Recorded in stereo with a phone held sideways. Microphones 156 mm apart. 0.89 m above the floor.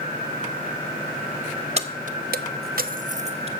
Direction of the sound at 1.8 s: 45° right (ahead or behind).